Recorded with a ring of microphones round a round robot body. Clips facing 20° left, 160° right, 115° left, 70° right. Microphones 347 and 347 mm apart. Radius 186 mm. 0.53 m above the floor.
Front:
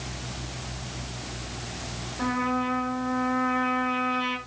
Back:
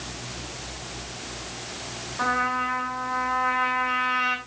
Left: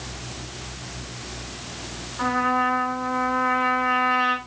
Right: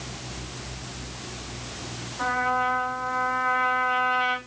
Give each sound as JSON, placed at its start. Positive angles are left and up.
{"t": 2.2, "sound": "a trumpet", "azimuth_deg": 140, "distance_m": 8.0}